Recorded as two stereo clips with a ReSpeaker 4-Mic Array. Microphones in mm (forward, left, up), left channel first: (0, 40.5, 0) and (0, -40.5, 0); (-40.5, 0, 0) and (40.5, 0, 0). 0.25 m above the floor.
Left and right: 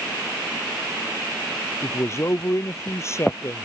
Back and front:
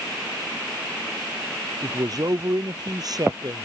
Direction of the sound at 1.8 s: 35° left.